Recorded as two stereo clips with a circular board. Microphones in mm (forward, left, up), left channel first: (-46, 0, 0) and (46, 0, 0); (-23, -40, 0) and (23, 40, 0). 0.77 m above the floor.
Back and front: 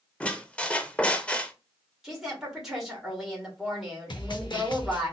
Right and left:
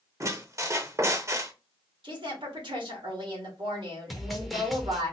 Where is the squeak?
110° left, 0.6 m.